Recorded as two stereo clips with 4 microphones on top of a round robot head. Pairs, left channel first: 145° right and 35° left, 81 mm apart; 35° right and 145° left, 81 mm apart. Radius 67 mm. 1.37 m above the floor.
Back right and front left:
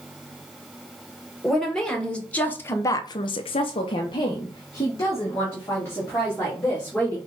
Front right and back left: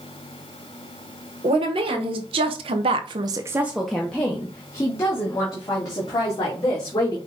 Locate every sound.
1.4 s a woman speaking: 130° left, 1.5 m; by 7.2 s 80° right, 3 m